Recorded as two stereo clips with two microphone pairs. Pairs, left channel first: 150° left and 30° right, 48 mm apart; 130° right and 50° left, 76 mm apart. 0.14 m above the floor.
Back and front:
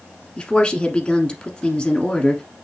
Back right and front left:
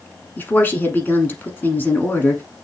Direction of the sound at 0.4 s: 160° right.